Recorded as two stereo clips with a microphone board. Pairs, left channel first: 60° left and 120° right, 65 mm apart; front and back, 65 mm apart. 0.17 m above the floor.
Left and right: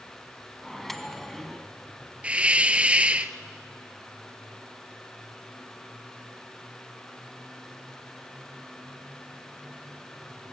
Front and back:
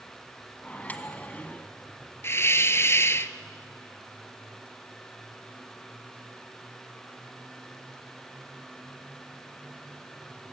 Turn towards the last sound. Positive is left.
turn(degrees=-50)